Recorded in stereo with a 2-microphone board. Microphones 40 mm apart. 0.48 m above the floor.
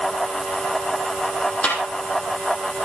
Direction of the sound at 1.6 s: 30° left (ahead or behind).